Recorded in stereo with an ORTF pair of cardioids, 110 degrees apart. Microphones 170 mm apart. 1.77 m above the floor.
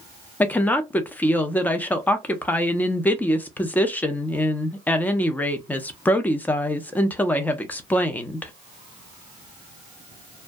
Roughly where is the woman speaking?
Ahead.